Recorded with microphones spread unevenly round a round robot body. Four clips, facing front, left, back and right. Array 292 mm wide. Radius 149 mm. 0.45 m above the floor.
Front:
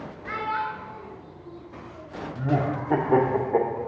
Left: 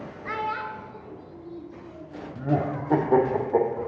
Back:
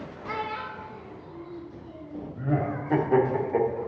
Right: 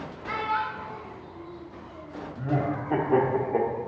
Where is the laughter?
50° left, 1.2 m.